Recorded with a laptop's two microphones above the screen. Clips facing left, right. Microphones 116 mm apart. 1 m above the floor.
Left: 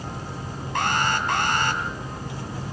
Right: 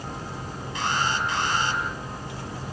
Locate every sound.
0.8 s an alarm: 60° left (ahead or behind), 5 m